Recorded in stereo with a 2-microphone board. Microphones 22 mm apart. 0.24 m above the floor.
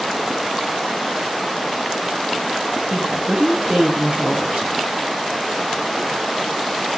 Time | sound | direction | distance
2.9 | a woman speaking | 65° right (ahead or behind) | 3.5 m